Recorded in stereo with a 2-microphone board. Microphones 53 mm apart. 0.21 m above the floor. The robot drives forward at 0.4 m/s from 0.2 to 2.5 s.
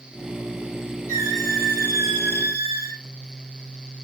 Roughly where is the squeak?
Right.